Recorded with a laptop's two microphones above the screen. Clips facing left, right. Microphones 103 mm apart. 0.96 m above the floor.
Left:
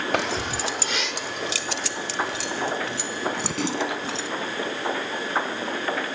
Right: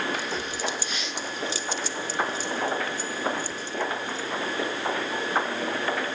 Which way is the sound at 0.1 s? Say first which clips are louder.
Left 5 dB; 65° left (ahead or behind).